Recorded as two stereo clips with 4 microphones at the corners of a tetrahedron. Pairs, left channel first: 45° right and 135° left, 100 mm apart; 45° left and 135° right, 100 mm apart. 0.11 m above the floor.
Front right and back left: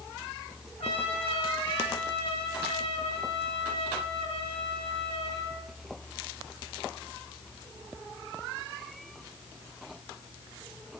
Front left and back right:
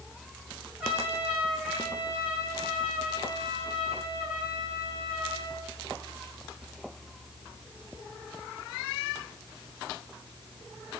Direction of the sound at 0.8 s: 55° right.